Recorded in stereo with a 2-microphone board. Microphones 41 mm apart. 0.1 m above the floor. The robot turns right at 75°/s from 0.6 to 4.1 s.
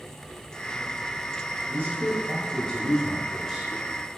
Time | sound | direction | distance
1.7 | a man speaking | 25° left (ahead or behind) | 1.4 m